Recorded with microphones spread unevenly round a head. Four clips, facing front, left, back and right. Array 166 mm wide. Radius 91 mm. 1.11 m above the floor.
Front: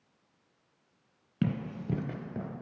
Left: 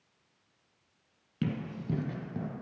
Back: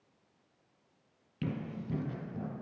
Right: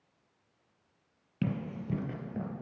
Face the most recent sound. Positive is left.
turn(degrees=90)